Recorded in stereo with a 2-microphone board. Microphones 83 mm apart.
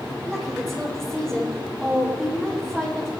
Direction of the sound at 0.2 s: 5° left (ahead or behind).